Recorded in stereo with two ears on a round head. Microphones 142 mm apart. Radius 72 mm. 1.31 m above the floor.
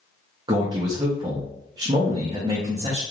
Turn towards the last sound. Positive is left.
turn(degrees=-25)  # may be behind; listen again after turning